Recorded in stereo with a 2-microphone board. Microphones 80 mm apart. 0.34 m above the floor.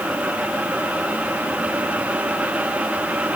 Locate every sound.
Only background noise.